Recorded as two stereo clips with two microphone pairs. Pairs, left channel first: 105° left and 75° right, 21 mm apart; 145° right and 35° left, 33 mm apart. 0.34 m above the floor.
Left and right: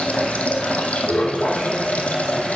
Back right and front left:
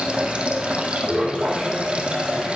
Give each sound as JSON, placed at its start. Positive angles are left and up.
{"t": 0.0, "sound": "running water", "azimuth_deg": 90, "distance_m": 2.5}